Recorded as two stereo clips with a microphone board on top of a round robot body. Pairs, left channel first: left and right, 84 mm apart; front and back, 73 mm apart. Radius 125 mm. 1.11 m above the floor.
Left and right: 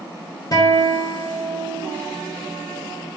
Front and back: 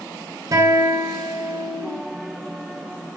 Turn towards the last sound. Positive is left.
turn(degrees=135)